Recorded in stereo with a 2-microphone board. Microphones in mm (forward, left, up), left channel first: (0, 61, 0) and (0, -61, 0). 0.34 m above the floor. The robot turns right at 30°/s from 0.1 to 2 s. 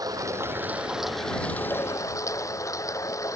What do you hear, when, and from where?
0.0 s running water: 30° right; by 3.4 s 25° left